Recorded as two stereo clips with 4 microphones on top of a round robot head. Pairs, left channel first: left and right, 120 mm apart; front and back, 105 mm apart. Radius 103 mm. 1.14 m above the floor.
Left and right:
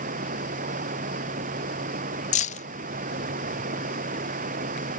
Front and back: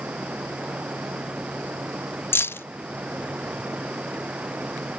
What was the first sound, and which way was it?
Running water, 95° right.